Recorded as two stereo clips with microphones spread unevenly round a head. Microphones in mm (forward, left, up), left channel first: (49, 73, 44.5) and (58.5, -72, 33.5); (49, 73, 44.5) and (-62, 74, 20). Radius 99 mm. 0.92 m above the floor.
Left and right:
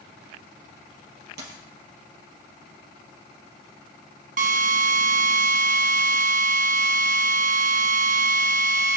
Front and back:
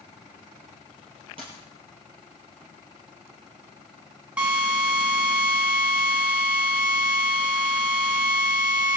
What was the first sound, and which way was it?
A dropped coin, 115° right.